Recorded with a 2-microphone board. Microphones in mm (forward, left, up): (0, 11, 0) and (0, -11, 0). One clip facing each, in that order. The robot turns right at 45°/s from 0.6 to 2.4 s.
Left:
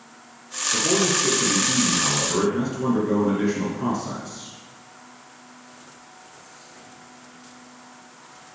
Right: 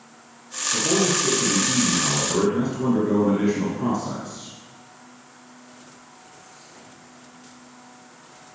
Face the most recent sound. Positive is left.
turn(degrees=170)